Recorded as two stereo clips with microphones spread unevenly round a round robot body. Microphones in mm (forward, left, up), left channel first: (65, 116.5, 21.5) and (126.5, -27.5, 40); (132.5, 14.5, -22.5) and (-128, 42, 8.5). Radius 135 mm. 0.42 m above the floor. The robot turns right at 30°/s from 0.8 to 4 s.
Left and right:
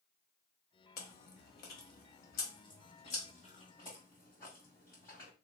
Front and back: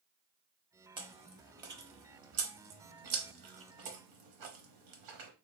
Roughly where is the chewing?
Left.